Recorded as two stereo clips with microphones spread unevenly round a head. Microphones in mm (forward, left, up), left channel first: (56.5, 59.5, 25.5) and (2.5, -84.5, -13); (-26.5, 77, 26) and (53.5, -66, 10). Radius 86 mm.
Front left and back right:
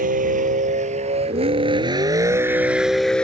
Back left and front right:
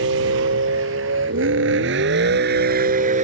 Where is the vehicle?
75° right; by 3.2 s 10° right.